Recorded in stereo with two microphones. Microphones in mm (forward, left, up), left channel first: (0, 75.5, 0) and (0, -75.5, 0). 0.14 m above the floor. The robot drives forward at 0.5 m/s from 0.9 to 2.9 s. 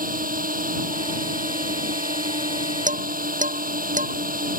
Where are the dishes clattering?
60° right (ahead or behind).